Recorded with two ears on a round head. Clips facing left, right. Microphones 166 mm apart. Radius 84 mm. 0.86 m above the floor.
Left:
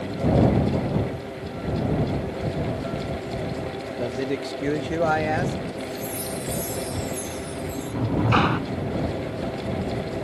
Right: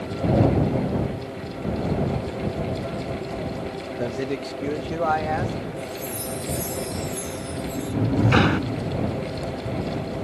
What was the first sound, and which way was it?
A man speaking, 10° right (ahead or behind).